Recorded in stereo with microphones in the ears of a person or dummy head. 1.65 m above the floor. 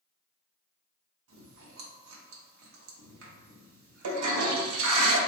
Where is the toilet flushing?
85° right, 0.6 m.